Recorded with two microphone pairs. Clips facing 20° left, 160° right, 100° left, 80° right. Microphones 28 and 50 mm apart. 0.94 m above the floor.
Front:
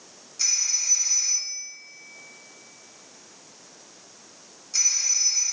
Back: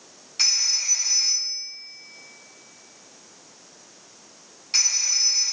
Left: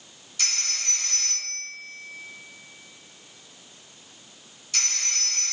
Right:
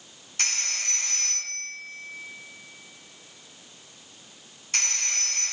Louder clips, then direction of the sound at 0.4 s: Back 4 dB, right 2 dB; 125° right.